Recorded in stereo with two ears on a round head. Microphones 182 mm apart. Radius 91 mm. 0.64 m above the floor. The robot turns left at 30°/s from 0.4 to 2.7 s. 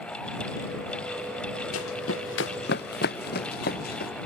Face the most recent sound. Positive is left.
turn(degrees=50)  # may be behind; listen again after turning